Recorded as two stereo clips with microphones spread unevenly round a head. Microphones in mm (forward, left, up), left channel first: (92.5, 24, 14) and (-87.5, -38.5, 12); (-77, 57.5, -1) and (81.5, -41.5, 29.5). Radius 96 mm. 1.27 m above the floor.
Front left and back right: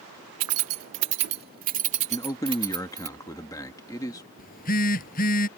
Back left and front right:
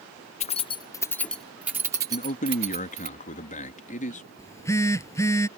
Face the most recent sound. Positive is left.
turn(degrees=70)